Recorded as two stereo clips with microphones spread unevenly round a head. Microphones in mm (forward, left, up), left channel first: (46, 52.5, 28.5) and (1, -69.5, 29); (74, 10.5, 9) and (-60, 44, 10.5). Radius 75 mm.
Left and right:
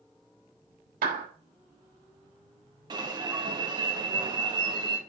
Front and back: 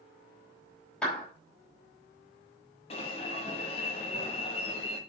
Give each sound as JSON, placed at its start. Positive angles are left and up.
{"t": 1.0, "sound": "a clap", "azimuth_deg": -100, "distance_m": 5.0}
{"t": 2.9, "sound": "an alarm", "azimuth_deg": -60, "distance_m": 2.5}